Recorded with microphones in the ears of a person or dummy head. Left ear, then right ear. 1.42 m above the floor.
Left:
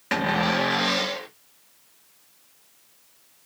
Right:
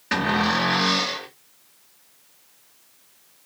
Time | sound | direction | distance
0.1 | a cupboard door | 30° left (ahead or behind) | 1.3 m